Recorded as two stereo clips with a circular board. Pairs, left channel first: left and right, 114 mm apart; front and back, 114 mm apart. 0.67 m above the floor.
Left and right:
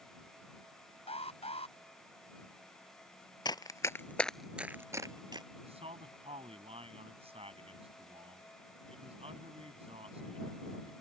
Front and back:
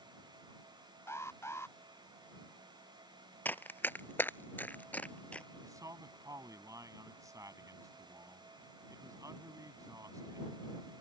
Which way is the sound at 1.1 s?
65° left.